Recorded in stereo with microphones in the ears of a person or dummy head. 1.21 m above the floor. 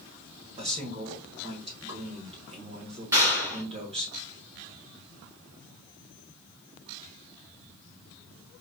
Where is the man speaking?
25° right (ahead or behind), 1.3 m.